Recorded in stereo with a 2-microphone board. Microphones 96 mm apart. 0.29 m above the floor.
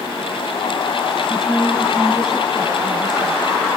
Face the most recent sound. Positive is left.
turn(degrees=-5)  # may be behind; listen again after turning